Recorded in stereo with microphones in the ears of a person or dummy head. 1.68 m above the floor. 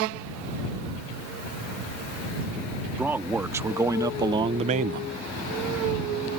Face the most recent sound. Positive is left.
turn(degrees=-60)  # may be behind; listen again after turning